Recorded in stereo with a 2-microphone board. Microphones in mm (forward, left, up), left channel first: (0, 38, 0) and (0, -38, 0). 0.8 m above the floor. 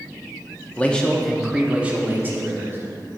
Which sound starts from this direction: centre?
A man speaking, at 0.8 s.